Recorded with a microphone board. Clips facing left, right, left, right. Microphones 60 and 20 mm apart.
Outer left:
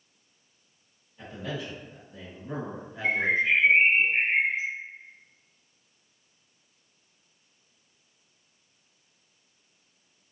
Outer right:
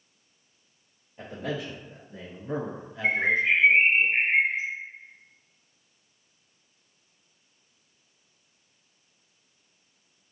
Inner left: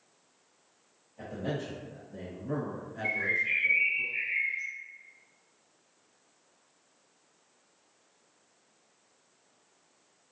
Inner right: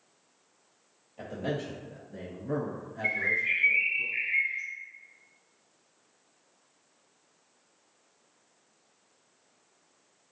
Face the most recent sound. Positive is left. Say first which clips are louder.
# outer right 1 dB, inner right 1 dB
turn(degrees=-35)  # may be behind; listen again after turning